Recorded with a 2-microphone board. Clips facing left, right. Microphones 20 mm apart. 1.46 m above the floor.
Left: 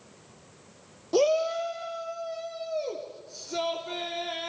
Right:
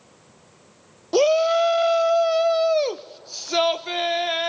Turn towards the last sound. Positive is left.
turn(degrees=-60)  # may be behind; listen again after turning